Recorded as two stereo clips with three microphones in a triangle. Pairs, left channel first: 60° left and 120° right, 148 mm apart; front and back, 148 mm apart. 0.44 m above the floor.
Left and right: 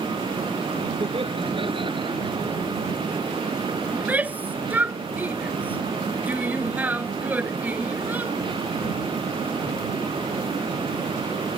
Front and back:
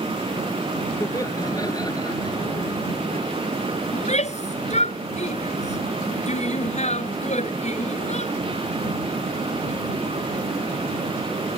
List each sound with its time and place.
1.0 s laughter: 70° right; by 3.2 s 60° right
3.9 s a shout: 40° right